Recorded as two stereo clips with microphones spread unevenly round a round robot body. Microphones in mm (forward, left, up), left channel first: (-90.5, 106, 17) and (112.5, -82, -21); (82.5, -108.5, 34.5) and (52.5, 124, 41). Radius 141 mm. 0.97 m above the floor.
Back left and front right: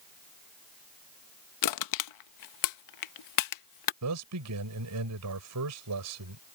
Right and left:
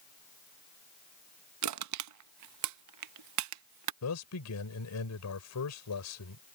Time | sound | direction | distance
1.6 | crushing | 115° left | ?
4.0 | a man speaking | 75° right | ?